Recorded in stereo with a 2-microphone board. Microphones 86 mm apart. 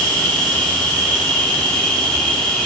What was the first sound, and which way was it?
An insect, 15° left (ahead or behind).